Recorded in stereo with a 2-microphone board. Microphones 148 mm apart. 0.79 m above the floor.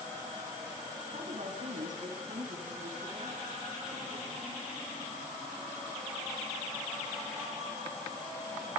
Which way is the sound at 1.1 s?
65° right (ahead or behind).